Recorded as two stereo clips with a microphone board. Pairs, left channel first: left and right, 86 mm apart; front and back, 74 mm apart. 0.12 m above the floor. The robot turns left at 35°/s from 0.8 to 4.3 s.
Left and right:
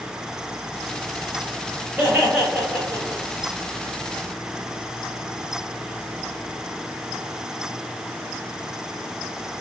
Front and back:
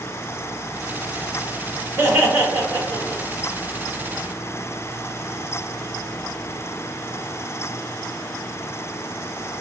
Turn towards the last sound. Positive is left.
turn(degrees=120)